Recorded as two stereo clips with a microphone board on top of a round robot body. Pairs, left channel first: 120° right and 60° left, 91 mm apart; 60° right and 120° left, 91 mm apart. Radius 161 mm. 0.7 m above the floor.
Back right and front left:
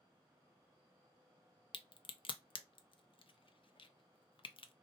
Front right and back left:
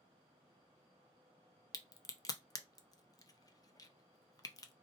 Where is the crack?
105° right, 0.6 m.